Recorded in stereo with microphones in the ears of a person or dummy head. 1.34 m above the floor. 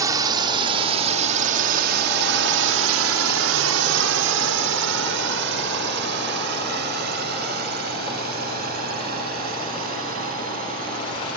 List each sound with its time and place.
0.0 s a drone: 15° right (ahead or behind); by 11.4 s 50° right (ahead or behind)